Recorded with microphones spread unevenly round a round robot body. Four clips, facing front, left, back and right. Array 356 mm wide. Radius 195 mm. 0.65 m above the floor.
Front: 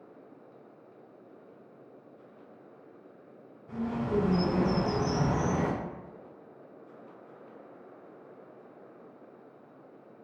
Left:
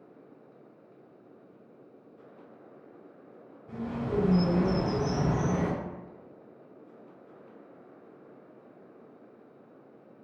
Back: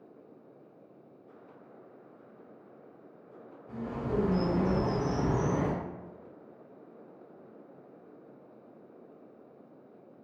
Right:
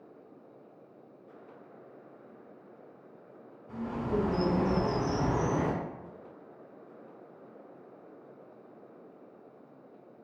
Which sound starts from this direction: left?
A bird, at 3.7 s.